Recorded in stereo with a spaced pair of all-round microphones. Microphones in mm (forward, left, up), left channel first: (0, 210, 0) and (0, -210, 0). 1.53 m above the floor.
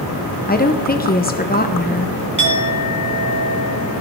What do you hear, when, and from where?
0.5 s a woman speaking: 20° left (ahead or behind), 0.8 m
2.4 s a clink: 45° left (ahead or behind), 3 m